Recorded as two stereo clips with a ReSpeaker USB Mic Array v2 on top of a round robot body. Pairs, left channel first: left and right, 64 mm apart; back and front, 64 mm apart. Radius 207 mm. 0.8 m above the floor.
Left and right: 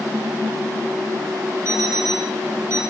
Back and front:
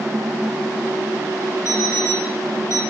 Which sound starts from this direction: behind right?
An alarm clock, at 1.6 s.